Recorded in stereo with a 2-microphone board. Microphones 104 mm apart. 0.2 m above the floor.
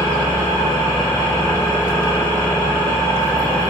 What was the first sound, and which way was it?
An engine running, 20° left (ahead or behind).